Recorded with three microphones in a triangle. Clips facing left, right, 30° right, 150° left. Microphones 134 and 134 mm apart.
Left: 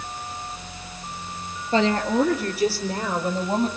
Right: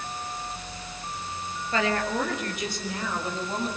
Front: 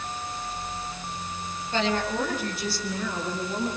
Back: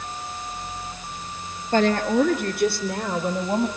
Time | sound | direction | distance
1.7 | a woman speaking | 140° left | 2.5 m